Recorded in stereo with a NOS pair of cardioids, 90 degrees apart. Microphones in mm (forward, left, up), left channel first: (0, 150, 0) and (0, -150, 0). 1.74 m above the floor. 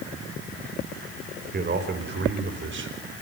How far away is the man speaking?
About 5.5 m.